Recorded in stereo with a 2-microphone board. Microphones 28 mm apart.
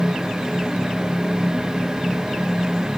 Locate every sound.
Only background noise.